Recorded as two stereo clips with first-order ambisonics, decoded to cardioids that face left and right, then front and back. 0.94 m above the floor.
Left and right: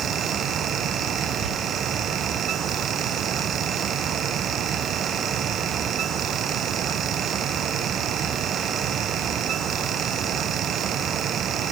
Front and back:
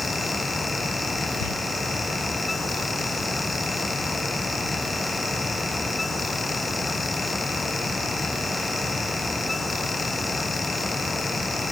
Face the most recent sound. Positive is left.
turn(degrees=-10)